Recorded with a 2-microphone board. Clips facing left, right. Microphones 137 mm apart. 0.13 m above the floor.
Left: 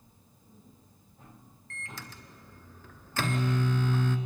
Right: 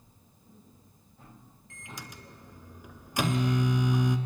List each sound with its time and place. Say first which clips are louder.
1.7 s a microwave: even; 15° right (ahead or behind), 1.5 m